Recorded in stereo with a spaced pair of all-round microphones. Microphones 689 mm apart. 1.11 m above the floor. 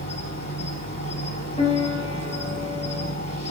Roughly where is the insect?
Centre.